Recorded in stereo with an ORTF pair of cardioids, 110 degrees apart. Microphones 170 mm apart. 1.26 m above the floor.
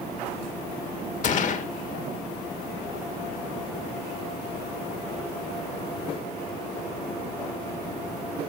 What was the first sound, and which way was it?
A gunshot, 50° left.